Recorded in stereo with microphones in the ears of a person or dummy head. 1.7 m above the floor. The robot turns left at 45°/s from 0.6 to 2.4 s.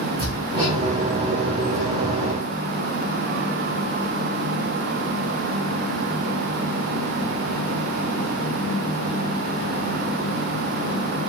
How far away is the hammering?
About 0.9 m.